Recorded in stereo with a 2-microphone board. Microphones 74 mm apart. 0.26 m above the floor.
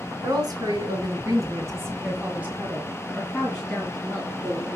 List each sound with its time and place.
0.2 s a woman speaking: 65° right (ahead or behind), 2.5 m; by 4.8 s 20° left (ahead or behind), 2.5 m